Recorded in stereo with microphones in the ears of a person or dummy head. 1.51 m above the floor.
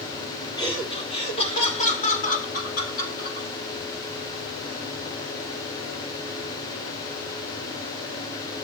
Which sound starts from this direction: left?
Laughter, at 0.6 s.